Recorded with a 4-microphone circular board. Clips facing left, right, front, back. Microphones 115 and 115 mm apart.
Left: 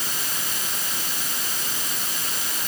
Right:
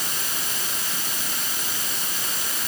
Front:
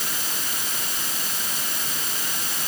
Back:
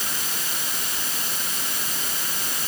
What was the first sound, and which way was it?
Only background noise.